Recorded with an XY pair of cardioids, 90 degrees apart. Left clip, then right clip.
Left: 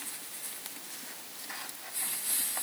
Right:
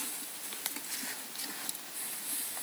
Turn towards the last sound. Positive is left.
No sound to turn to.